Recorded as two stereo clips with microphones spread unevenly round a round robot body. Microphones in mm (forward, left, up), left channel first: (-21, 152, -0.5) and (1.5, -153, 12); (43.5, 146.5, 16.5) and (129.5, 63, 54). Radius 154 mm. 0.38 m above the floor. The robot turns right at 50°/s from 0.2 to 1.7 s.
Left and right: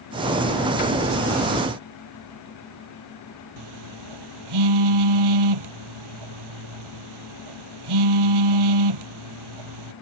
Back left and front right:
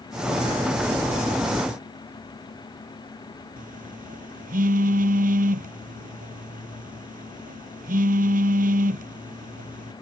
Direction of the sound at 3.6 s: 80° right.